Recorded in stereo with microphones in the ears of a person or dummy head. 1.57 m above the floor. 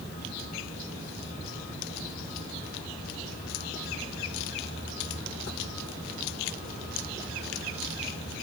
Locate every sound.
Only background noise.